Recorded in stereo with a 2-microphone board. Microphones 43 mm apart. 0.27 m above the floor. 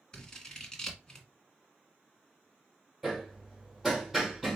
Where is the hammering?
5° right (ahead or behind), 2 m.